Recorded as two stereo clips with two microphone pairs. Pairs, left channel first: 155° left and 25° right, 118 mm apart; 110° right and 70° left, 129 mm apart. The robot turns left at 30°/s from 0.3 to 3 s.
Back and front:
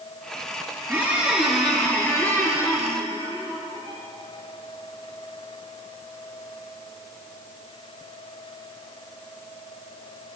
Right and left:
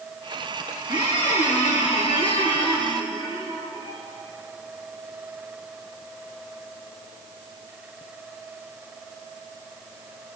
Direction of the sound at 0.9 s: 95° right.